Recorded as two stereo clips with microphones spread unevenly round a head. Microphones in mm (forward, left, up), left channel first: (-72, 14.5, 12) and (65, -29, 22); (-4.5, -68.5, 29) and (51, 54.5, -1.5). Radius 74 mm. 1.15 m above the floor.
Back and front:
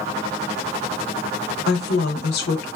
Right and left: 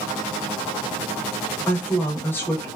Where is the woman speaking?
165° left, 0.6 m.